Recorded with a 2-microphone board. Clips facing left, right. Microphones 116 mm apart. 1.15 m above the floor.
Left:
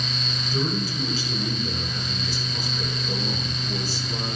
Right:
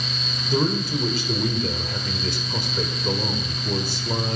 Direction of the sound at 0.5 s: 65° right (ahead or behind).